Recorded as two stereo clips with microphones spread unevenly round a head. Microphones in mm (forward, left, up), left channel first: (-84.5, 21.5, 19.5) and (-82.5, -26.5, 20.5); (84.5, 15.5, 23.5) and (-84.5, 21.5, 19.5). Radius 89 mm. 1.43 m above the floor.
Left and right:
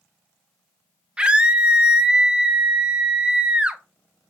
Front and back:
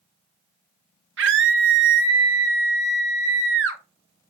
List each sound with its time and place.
1.2 s a scream: 155° right, 0.8 m